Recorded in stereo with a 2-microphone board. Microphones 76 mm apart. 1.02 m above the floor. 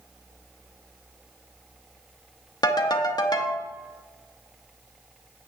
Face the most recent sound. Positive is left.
turn(degrees=70)  # may be behind; listen again after turning